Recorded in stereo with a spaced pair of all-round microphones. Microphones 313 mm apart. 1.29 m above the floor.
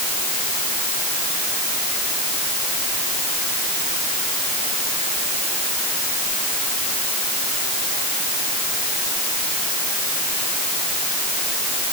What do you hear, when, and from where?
Only background noise.